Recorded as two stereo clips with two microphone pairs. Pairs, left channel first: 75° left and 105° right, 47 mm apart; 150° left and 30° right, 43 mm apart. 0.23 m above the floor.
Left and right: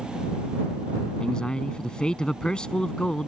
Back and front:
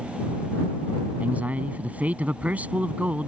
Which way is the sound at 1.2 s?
10° left.